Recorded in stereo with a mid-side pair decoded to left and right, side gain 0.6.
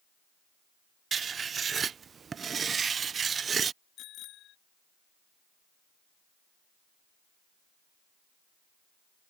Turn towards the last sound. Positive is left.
turn(degrees=60)